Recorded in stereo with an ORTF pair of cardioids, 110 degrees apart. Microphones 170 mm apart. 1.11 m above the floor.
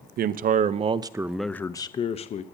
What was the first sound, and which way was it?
A man speaking, 60° right.